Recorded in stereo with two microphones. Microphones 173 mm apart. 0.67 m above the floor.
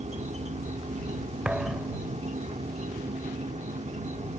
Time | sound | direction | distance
0.0 | an insect | 40° right (ahead or behind) | ?
1.4 | a thud | 5° right (ahead or behind) | ?